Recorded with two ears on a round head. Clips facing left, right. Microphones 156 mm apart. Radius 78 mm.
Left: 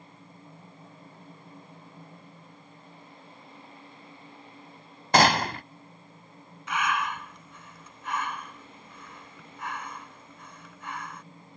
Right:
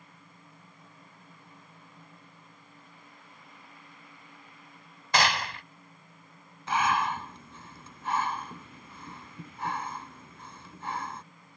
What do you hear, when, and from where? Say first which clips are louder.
5.1 s a gunshot: left 6 dB; 35° left (ahead or behind)
6.7 s breathing: right 2 dB; 25° right (ahead or behind)